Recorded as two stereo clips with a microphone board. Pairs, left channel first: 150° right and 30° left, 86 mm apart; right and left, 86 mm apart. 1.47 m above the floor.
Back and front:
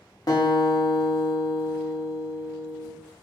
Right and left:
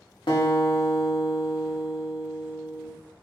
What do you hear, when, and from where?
0.3 s a guitar: 105° right, 1.3 m